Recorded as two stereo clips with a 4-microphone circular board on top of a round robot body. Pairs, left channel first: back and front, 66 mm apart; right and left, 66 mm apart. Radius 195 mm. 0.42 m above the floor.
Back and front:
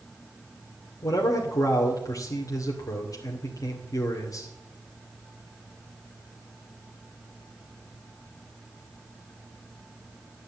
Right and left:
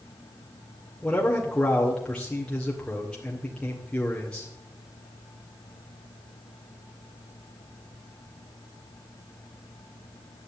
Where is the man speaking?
165° right, 2.5 m.